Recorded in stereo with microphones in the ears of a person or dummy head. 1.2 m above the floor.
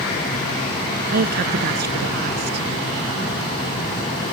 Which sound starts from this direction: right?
A woman speaking, at 1.1 s.